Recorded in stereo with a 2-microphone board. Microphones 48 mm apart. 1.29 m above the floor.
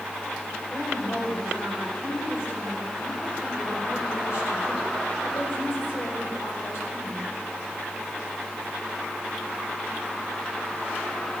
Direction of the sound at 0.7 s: 70° left (ahead or behind).